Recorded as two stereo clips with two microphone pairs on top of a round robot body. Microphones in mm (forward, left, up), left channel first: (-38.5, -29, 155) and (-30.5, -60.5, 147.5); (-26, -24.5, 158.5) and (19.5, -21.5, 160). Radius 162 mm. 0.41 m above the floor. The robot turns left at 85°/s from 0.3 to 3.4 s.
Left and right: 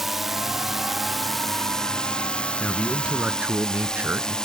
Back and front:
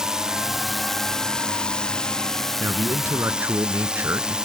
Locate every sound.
0.0 s a drone: 50° right; by 4.5 s 45° left
2.6 s a man speaking: 35° left; by 4.4 s 35° right